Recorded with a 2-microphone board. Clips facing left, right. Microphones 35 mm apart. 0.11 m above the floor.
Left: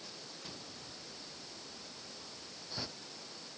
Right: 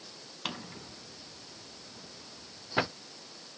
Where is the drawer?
70° right (ahead or behind).